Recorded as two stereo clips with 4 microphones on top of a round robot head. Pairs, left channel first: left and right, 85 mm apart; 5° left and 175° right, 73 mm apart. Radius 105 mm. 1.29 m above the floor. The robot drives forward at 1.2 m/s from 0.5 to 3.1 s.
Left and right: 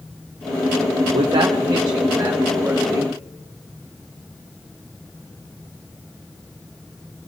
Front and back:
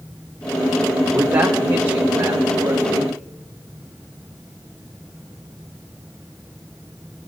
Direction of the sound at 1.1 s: 100° right.